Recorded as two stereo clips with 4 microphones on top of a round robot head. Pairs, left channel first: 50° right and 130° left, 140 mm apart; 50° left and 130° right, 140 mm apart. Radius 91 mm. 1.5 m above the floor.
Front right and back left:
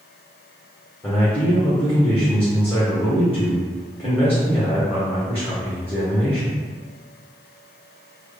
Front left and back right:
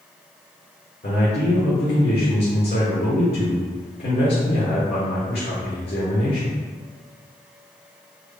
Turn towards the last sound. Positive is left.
turn(degrees=30)